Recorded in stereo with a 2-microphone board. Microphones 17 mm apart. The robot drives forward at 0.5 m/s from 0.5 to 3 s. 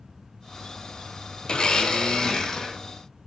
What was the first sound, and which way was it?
A blender, 45° left (ahead or behind).